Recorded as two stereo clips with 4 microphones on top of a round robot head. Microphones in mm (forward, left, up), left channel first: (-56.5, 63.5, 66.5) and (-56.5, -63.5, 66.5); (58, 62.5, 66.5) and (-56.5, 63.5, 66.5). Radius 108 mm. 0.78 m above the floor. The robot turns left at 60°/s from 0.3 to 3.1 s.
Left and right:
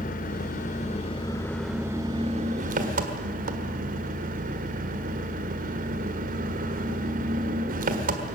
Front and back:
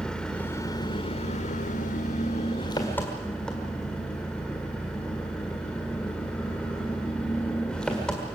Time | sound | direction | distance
0.0 | an engine running | 80° left | 1.6 m